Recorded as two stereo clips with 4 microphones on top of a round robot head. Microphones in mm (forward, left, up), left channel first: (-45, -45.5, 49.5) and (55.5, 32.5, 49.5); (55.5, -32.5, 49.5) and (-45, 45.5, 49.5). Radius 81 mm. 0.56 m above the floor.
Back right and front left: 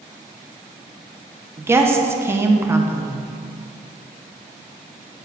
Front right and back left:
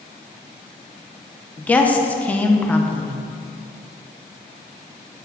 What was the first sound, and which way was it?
A woman speaking, 20° left.